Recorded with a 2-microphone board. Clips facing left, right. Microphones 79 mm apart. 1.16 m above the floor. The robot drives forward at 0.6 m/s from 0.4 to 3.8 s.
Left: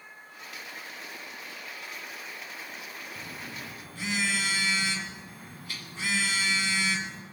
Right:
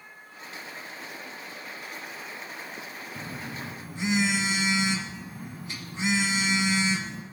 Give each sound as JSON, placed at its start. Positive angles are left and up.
{"t": 3.1, "sound": "a phone buzzing", "side_deg": -25, "distance_m": 1.3}